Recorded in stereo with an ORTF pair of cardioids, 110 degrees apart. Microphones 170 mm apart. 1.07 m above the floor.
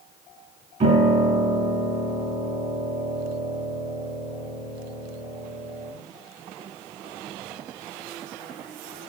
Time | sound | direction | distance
0.8 | a piano | 45° right | 2.5 m